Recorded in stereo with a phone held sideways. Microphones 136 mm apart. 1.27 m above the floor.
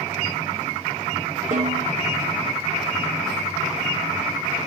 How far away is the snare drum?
About 1.8 m.